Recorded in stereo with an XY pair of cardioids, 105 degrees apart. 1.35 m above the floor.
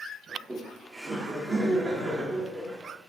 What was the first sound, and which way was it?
Laughter, 25° right.